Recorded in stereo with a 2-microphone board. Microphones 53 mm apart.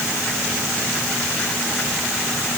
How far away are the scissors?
I don't hear scissors.